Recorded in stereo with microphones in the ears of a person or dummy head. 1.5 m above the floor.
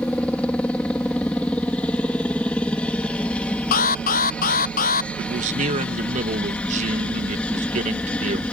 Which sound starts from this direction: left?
An alarm, at 3.7 s.